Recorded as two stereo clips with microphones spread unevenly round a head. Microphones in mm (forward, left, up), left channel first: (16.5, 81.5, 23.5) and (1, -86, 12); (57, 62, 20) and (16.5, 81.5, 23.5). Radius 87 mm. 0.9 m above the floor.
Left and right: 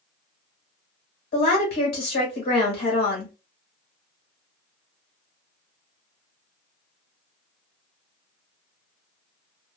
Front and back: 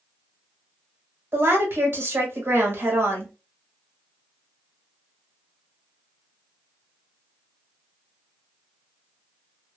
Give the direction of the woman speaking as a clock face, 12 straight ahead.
8 o'clock.